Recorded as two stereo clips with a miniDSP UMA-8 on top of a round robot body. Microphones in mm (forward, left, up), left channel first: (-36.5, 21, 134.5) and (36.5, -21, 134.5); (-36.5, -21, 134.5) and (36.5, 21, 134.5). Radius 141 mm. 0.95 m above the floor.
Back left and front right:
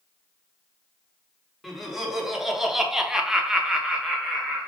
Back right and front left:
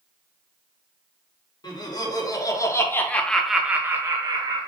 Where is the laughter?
115° right, 1.1 m; by 4.7 s 55° left, 0.8 m.